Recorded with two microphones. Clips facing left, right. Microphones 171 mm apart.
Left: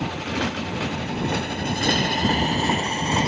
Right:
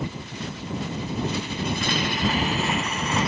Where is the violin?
I don't hear a violin.